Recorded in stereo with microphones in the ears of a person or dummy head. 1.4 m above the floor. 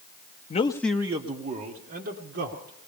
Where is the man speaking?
35° left (ahead or behind), 0.6 m; by 2.9 s 50° right (ahead or behind), 1.9 m.